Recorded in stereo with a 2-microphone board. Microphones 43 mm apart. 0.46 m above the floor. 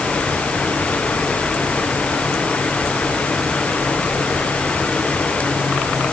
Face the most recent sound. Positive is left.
No sound to turn to.